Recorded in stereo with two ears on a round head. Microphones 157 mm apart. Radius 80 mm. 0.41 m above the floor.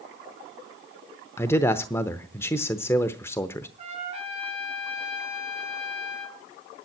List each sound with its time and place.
1.4 s a man speaking: 15° left (ahead or behind), 0.8 m
3.8 s a trumpet: 35° right (ahead or behind), 4.5 m